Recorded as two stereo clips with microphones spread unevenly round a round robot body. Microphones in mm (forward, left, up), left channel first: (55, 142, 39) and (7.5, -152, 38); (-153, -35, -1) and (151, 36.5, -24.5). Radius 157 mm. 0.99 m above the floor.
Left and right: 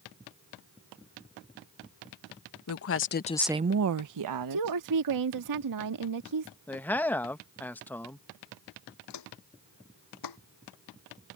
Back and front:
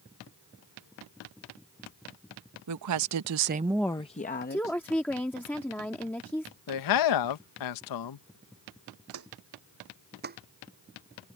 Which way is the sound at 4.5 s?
80° right.